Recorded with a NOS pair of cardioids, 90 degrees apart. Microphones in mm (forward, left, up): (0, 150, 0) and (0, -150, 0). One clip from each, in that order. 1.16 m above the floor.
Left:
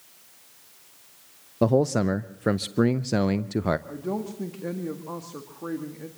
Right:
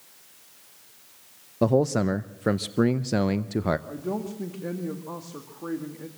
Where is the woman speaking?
10° left, 1.9 m.